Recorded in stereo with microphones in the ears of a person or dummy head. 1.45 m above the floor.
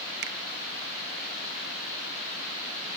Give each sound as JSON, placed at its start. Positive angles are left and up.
{"t": 0.2, "sound": "a finger snap", "side_deg": -60}